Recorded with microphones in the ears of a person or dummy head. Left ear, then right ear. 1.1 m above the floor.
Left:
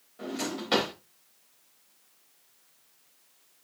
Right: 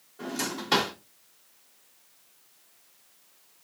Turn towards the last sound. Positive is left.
turn(degrees=10)  # may be behind; listen again after turning